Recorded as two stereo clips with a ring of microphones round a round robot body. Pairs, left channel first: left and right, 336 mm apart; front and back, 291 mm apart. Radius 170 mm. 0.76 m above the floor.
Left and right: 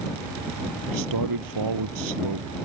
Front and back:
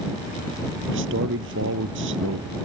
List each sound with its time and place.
0.9 s a man speaking: 120° right